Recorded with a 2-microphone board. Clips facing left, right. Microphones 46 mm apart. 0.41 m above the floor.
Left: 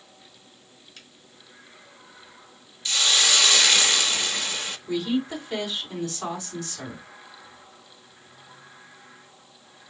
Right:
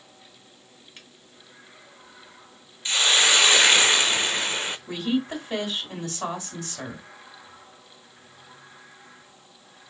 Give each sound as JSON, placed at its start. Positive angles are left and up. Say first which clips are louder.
{"t": 1.0, "sound": "a finger snap", "louder": "right 1 dB", "side_deg": -25, "distance_m": 2.0}
{"t": 2.9, "sound": "a hiss", "louder": "right 2 dB", "side_deg": -30, "distance_m": 0.5}
{"t": 4.9, "sound": "a woman speaking", "louder": "left 2 dB", "side_deg": -35, "distance_m": 3.0}